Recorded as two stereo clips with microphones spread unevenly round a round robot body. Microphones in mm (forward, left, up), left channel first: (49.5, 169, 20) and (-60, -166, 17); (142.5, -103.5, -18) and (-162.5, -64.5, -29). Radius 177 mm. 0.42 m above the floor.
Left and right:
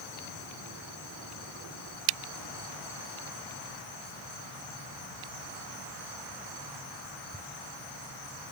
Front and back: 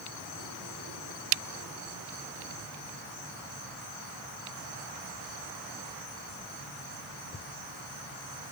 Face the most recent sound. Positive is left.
No sound to turn to.